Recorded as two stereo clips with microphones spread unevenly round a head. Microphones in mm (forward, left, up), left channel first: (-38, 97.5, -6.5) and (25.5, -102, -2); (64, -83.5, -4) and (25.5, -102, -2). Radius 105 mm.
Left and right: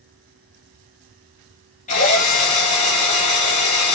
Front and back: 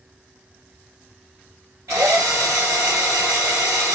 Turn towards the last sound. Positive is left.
turn(degrees=160)